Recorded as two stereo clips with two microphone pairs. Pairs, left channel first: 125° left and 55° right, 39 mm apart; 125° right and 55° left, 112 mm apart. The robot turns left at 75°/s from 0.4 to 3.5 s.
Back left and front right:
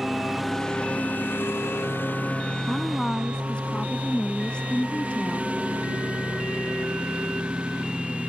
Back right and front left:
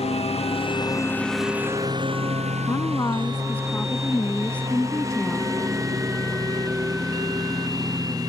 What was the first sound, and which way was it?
A lawn mower, 145° right.